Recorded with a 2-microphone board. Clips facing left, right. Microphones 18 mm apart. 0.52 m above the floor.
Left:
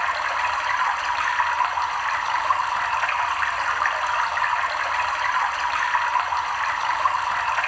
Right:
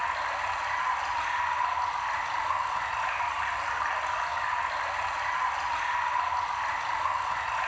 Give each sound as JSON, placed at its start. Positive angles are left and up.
{"t": 0.0, "sound": "running water", "side_deg": 45, "distance_m": 0.7}